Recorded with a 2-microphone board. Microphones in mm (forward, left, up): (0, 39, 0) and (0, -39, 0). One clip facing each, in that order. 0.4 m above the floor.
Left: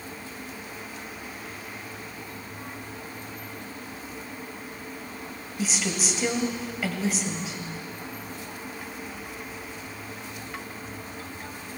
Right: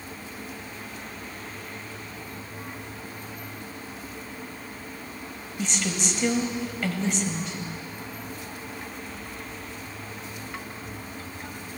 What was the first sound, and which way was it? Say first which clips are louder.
A woman speaking: even; 5° left (ahead or behind).